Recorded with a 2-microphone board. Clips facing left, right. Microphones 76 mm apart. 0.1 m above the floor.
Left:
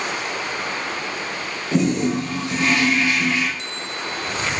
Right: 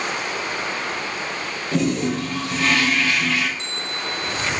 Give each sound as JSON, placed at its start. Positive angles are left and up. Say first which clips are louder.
{"t": 1.7, "sound": "a toilet flushing", "louder": "left 2 dB", "side_deg": 20, "distance_m": 0.9}
{"t": 3.6, "sound": "a bell", "louder": "even", "side_deg": -35, "distance_m": 1.0}